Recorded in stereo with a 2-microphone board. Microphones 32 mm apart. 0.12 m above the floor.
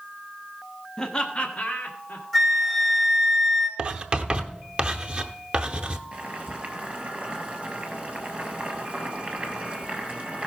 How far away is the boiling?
About 2 m.